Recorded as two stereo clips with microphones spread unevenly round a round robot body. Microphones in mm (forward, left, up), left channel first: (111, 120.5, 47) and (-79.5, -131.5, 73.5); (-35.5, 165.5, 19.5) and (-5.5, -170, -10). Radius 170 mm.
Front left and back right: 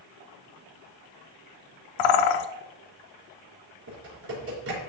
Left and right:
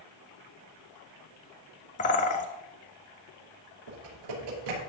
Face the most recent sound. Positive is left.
turn(degrees=-75)